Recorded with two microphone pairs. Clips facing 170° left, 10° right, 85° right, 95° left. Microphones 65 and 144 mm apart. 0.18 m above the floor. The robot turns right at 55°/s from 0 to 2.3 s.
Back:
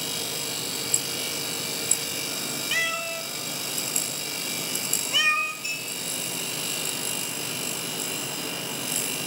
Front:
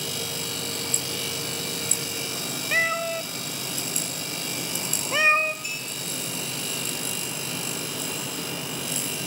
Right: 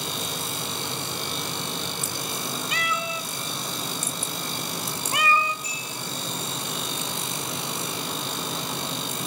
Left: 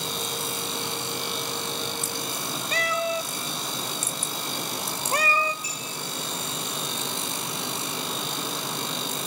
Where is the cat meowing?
40° left, 0.5 m.